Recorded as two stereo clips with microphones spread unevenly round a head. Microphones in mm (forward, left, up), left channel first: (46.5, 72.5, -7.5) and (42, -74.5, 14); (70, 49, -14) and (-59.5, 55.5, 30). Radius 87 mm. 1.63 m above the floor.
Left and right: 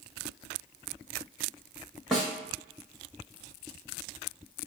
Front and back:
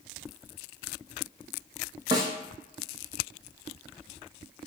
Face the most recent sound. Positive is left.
turn(degrees=-175)